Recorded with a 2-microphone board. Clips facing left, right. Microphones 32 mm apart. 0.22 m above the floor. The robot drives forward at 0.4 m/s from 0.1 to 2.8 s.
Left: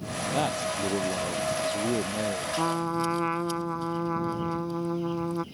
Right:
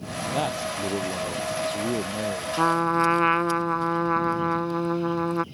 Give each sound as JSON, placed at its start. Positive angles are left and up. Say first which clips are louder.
{"t": 0.3, "sound": "a man speaking", "louder": "right 1 dB", "side_deg": -5}
{"t": 2.6, "sound": "a trumpet", "louder": "right 8 dB", "side_deg": -60}